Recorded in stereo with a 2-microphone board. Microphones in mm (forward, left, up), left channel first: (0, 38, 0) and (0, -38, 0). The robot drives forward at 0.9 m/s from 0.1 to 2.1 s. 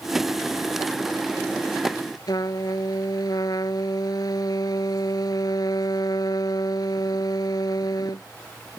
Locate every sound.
2.3 s a trumpet: 60° left (ahead or behind)